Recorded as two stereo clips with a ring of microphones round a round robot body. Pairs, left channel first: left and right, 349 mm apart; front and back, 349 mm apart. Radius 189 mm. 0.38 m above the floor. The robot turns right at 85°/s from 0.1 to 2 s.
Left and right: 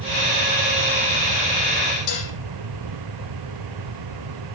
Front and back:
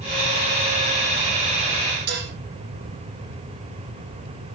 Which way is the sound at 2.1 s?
130° left.